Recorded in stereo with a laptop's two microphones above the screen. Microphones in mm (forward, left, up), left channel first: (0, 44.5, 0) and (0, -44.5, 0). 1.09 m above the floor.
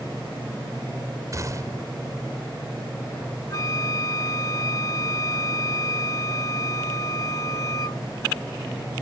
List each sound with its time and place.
1.3 s a gunshot: 40° right (ahead or behind)
3.5 s a flute: 40° left (ahead or behind)